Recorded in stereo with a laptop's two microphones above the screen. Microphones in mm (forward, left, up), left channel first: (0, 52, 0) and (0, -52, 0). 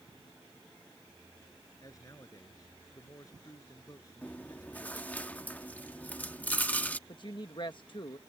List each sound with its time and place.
1.8 s a man speaking: 35° left (ahead or behind)
4.2 s chewing: 15° left (ahead or behind)
7.1 s a woman speaking: 50° left (ahead or behind)